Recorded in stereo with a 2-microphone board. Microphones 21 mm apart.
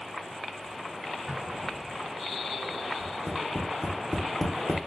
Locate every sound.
1.3 s an explosion: 35° right (ahead or behind), 1.7 m
3.0 s tapping: 25° left (ahead or behind), 0.9 m